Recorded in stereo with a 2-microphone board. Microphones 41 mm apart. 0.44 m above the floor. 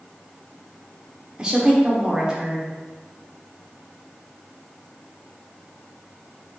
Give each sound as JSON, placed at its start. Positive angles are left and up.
{"t": 1.4, "sound": "a woman speaking", "side_deg": -20, "distance_m": 0.8}